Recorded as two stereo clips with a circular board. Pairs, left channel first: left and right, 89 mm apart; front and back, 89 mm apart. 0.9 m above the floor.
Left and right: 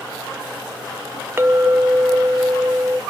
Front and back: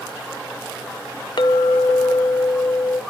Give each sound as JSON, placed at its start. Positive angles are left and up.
{"t": 1.4, "sound": "a clink", "azimuth_deg": -30, "distance_m": 0.7}